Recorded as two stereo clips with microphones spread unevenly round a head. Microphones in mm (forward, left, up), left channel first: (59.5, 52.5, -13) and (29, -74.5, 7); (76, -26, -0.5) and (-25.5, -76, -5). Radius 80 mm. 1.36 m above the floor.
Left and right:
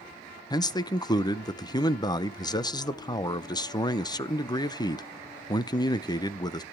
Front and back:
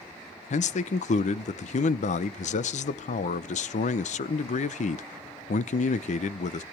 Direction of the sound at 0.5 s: 15° left.